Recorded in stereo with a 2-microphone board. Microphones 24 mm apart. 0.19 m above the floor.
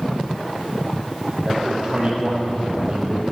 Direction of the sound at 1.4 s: 45° right (ahead or behind).